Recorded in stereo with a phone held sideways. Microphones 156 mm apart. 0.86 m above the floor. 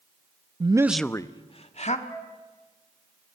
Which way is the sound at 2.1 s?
15° left (ahead or behind).